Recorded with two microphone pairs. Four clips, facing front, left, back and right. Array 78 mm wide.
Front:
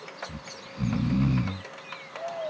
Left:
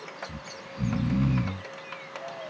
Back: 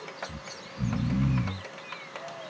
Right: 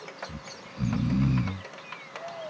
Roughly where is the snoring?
Ahead.